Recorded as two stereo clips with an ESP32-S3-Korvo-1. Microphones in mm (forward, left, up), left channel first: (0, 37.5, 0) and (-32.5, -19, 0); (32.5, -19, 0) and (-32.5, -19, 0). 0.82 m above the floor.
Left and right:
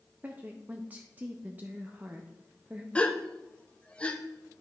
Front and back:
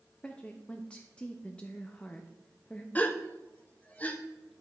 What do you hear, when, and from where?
0.2 s a woman speaking: 65° right, 0.5 m
3.0 s a gasp: 20° left, 0.5 m